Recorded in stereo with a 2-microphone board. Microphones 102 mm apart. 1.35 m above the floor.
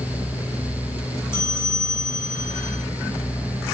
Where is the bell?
45° right (ahead or behind), 3 m.